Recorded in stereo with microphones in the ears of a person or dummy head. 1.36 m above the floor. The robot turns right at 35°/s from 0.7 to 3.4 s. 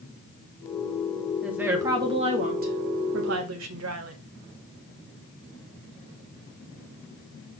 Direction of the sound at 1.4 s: 175° right.